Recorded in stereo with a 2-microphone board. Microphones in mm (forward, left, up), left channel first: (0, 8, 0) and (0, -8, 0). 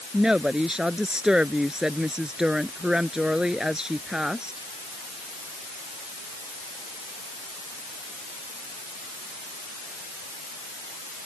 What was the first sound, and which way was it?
A woman speaking, 65° right (ahead or behind).